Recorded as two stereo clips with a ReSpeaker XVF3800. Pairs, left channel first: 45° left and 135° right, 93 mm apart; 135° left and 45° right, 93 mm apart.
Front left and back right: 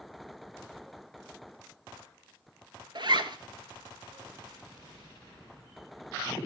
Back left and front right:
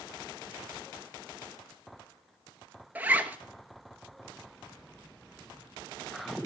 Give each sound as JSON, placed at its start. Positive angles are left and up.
{"t": 3.0, "sound": "a zipper", "azimuth_deg": -115, "distance_m": 0.5}